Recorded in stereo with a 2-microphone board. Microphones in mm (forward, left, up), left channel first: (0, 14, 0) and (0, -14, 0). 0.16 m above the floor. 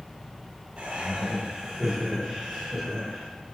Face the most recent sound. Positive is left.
turn(degrees=5)  # may be behind; listen again after turning